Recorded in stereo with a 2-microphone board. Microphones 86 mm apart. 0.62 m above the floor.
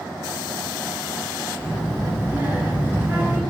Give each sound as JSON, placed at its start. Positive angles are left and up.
{"t": 1.6, "sound": "a child speaking", "side_deg": -25, "distance_m": 0.6}